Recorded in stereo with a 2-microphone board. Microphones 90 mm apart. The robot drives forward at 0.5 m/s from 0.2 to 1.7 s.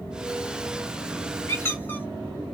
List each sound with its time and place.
1.5 s a squeak: 25° left (ahead or behind), 1.0 m